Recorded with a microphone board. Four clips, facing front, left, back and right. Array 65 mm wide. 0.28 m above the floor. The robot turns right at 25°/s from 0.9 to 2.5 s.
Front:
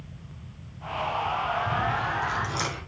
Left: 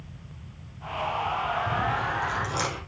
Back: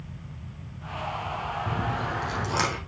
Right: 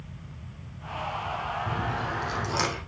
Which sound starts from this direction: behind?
Chewing, at 1.7 s.